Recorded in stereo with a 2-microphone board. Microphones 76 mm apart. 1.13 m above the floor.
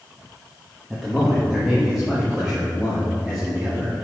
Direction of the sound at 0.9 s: 10° right (ahead or behind).